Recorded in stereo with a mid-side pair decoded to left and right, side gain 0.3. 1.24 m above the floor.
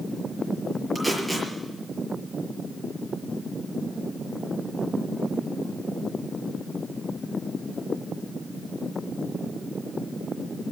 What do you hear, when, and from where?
0.9 s tape being pulled: 5° right, 6 m